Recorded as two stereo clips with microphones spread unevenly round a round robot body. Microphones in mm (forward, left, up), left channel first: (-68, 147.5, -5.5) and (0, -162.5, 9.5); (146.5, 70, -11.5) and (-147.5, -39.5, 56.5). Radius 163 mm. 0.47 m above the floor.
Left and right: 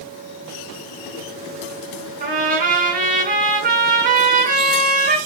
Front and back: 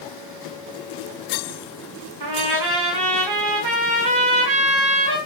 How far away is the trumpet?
About 6.5 m.